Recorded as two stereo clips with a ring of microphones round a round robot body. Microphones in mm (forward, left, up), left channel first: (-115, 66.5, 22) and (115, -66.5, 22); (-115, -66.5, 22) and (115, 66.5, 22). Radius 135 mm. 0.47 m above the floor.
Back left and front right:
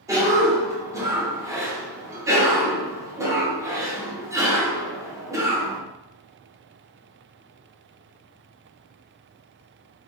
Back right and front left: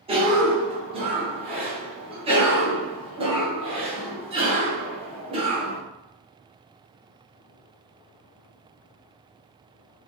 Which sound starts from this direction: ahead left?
A cough, at 0.1 s.